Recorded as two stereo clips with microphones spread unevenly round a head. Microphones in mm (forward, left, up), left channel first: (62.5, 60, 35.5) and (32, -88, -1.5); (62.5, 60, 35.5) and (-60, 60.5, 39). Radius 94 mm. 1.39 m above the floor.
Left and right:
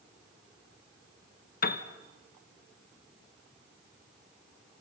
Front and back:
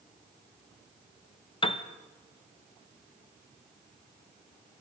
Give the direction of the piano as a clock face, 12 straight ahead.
10 o'clock.